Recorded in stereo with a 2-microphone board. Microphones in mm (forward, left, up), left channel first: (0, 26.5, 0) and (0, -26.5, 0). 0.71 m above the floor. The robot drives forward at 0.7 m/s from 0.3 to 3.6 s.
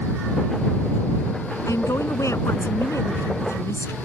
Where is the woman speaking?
70° left (ahead or behind); by 3.9 s 65° left (ahead or behind).